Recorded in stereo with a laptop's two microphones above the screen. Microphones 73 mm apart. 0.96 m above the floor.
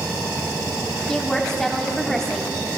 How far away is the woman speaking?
About 2.5 m.